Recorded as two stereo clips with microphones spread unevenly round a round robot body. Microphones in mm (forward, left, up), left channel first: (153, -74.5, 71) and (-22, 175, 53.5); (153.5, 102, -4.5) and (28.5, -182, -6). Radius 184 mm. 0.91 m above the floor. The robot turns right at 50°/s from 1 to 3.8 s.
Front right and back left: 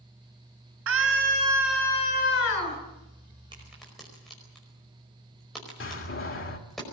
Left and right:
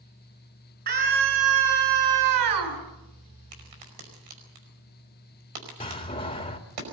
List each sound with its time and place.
0.9 s a scream: 175° left, 6 m; by 2.8 s 95° right, 6 m
3.5 s a crack: 160° right, 5 m; by 6.8 s 145° right, 5 m
5.8 s a door slam: 5° right, 2 m